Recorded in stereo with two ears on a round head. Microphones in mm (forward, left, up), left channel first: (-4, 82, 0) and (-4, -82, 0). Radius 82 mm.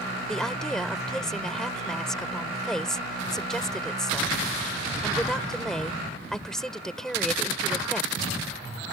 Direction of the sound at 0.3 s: 5° left (ahead or behind).